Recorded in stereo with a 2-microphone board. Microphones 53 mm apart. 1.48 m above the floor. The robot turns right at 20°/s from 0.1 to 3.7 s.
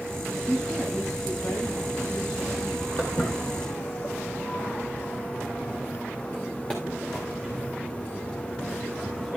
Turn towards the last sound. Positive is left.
turn(degrees=10)  # may be behind; listen again after turning